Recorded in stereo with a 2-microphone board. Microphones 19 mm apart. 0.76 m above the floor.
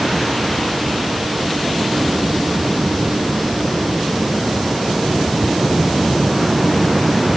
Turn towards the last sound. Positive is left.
No sound to turn to.